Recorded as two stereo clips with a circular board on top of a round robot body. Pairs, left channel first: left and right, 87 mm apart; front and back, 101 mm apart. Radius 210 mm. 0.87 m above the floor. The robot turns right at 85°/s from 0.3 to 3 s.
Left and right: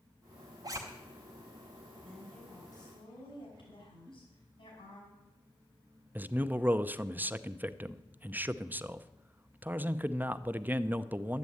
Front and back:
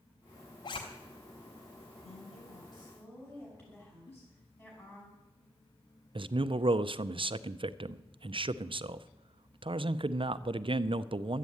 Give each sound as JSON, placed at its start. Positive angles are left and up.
{"t": 0.6, "sound": "a zipper", "azimuth_deg": -50, "distance_m": 0.5}
{"t": 2.0, "sound": "a woman speaking", "azimuth_deg": -15, "distance_m": 5.5}
{"t": 4.1, "sound": "a giggle", "azimuth_deg": -35, "distance_m": 1.9}
{"t": 6.2, "sound": "a man speaking", "azimuth_deg": -155, "distance_m": 0.6}